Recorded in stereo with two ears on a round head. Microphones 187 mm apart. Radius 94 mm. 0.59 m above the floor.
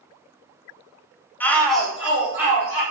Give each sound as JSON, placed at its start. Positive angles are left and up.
{"t": 1.4, "sound": "a shout", "side_deg": 10, "distance_m": 0.7}